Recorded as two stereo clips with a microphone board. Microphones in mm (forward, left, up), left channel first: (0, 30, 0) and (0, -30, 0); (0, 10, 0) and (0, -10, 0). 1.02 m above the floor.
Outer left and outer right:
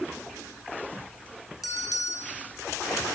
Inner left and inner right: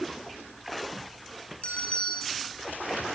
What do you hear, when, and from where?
1.6 s a bell: 85° left, 4 m